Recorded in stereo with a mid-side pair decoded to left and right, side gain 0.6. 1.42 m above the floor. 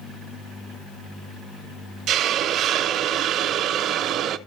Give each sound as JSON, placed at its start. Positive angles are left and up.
{"t": 2.1, "sound": "a hiss", "azimuth_deg": -55, "distance_m": 0.9}